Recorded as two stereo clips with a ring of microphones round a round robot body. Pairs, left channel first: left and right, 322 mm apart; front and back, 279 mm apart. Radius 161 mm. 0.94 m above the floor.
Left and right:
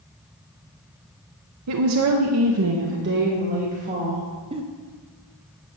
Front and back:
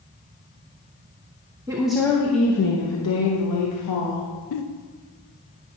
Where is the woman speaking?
105° right, 0.7 m; by 4.3 s 20° right, 1.5 m.